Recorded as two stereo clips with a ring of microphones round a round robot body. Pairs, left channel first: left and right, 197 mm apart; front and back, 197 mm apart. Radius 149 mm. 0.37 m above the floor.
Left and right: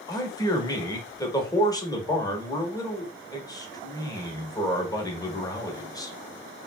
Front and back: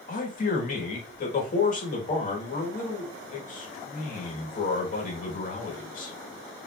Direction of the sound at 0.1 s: 25° left.